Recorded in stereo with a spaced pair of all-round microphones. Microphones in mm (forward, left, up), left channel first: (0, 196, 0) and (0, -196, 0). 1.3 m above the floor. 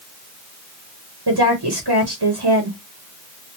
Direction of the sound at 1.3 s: 75° right (ahead or behind).